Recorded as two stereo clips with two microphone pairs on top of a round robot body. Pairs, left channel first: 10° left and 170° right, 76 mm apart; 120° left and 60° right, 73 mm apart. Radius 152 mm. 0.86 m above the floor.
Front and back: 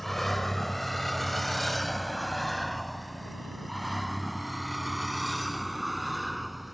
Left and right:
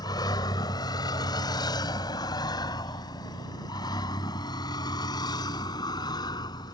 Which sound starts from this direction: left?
A vehicle, at 0.0 s.